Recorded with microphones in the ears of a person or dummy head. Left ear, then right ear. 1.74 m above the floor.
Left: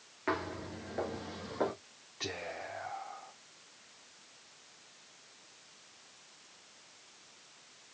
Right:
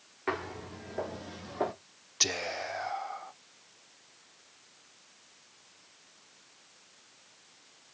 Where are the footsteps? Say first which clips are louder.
Right 1 dB; 5° right (ahead or behind), 2 m; by 1.7 s 5° left (ahead or behind), 1.7 m.